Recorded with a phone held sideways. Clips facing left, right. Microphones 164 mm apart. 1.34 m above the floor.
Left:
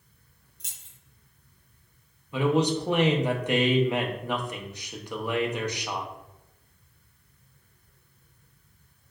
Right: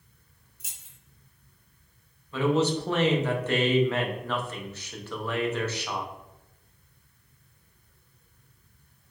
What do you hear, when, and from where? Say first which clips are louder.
0.6 s keys jangling: right 1 dB; 5° right (ahead or behind), 0.7 m
2.3 s a man speaking: even; 15° left (ahead or behind), 0.6 m